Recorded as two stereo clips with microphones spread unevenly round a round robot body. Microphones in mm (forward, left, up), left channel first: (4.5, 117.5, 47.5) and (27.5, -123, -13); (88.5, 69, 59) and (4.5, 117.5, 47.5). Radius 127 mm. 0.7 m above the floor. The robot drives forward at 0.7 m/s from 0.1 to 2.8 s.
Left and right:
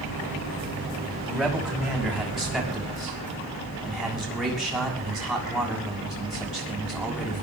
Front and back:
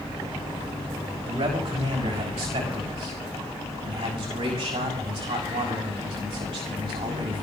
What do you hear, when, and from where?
1.3 s a man speaking: 170° right, 5.5 m